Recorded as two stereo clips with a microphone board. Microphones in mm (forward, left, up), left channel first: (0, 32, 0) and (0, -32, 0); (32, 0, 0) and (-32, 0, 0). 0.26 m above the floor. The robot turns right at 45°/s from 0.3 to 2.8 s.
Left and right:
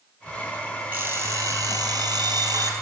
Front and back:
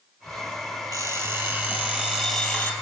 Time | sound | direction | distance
0.9 | an alarm clock | 155° right | 4 m